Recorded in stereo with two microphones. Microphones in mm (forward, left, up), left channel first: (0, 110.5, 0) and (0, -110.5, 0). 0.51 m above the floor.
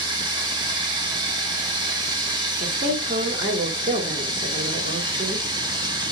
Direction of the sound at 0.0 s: 20° right (ahead or behind).